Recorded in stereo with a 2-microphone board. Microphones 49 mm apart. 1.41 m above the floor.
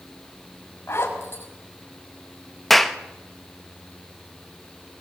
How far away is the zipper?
About 6 m.